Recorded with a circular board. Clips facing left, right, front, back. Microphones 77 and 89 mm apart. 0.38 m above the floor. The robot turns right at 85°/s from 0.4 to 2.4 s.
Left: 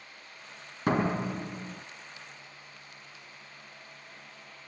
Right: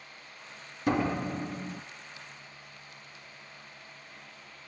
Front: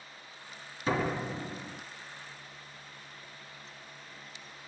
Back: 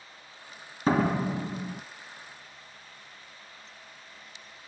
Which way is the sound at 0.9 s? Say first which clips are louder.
Left 1 dB, back 6 dB; 130° left.